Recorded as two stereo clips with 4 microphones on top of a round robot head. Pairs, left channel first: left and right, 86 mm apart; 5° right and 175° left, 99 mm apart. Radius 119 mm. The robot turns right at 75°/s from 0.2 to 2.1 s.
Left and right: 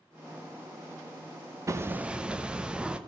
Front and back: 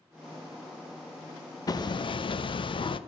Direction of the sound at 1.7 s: 45° right.